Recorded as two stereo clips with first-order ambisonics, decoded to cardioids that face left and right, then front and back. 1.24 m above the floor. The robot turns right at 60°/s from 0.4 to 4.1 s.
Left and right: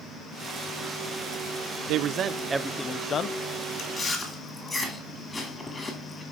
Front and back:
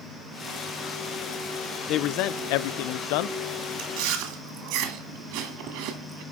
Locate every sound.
1.9 s a man speaking: 55° right, 0.5 m; by 3.4 s 35° left, 0.5 m
3.8 s chewing: 155° left, 2.5 m; by 6.2 s 170° left, 2.5 m